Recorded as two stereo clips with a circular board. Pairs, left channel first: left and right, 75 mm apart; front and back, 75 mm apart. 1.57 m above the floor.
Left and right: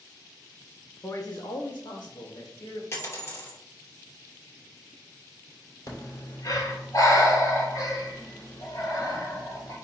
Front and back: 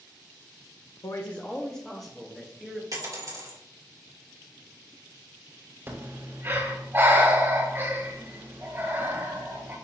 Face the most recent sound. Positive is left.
turn(degrees=125)